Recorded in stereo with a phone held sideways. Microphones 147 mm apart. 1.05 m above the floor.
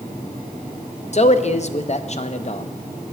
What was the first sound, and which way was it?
A man speaking, 50° left (ahead or behind).